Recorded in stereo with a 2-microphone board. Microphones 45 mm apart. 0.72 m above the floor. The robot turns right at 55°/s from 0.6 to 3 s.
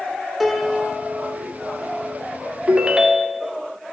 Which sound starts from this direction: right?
A ringtone, at 2.7 s.